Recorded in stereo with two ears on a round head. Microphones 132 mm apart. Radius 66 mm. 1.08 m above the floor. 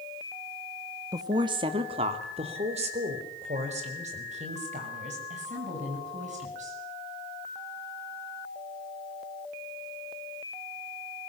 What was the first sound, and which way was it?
A woman speaking, 25° right (ahead or behind).